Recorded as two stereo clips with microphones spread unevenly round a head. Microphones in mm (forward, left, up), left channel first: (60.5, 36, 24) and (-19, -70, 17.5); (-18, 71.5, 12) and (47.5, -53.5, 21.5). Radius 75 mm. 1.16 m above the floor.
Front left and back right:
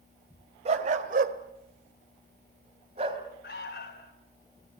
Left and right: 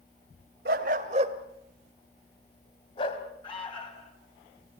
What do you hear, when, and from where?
0.7 s a dog barking: 85° right, 2 m; by 3.2 s 175° left, 3 m
3.4 s an alarm: 65° left, 4.5 m